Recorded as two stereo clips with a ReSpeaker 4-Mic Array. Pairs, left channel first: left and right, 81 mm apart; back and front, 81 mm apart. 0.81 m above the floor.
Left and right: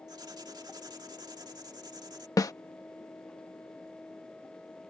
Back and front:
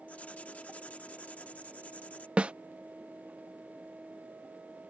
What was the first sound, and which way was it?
Writing, 110° right.